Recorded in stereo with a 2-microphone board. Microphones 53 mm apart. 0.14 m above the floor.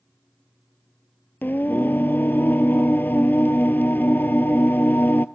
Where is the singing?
40° left (ahead or behind), 0.6 m.